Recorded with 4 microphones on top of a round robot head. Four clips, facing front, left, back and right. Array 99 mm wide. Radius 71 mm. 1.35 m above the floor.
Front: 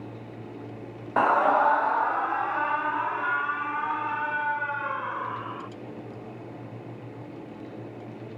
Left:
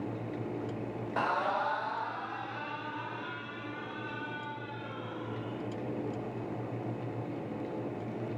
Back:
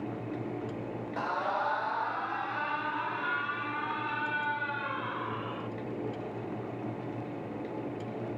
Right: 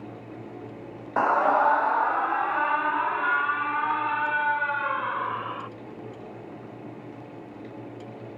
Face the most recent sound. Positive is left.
turn(degrees=-65)